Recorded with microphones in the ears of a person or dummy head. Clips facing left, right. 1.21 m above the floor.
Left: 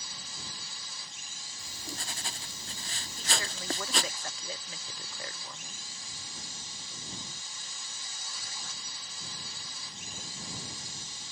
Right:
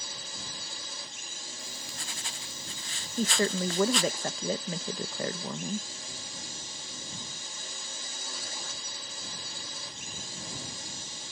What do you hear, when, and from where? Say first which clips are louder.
0.0 s a drone: right 4 dB; 50° right (ahead or behind)
1.6 s writing: left 4 dB; 35° left (ahead or behind)
3.2 s a woman speaking: right 12 dB; 40° right (ahead or behind)